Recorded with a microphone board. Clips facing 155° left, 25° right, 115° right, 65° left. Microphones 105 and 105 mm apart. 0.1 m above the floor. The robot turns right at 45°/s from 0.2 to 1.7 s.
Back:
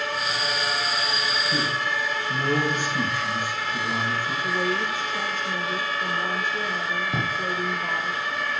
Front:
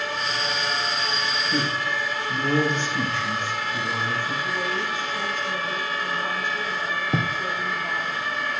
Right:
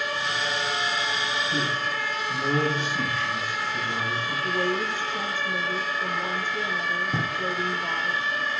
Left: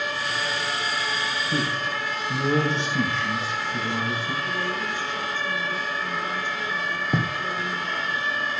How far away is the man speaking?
About 7 m.